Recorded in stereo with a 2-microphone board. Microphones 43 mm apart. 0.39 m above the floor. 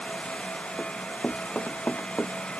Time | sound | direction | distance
0.8 | running footsteps | 35° left (ahead or behind) | ?